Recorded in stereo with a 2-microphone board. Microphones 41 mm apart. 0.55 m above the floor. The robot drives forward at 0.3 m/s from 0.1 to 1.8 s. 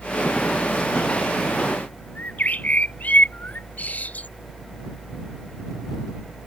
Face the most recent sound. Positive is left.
turn(degrees=40)  # may be behind; listen again after turning